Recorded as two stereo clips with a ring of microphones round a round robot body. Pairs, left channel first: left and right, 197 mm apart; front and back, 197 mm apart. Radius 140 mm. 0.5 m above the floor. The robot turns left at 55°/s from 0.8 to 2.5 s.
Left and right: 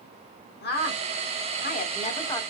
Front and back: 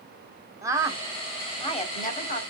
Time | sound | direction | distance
0.6 | a woman speaking | 105° left | 1.1 m